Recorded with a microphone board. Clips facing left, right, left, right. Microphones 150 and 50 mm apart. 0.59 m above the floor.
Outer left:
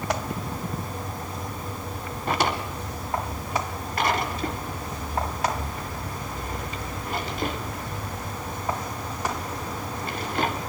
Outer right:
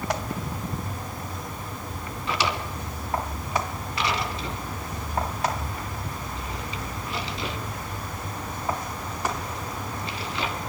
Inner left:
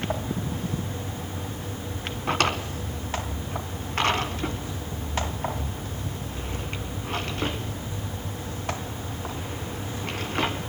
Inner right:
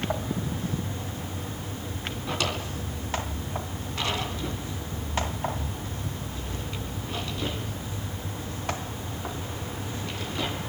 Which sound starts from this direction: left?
A drawer, at 2.3 s.